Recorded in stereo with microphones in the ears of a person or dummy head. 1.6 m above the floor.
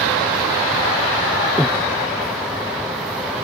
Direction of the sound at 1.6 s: Centre (ahead or behind).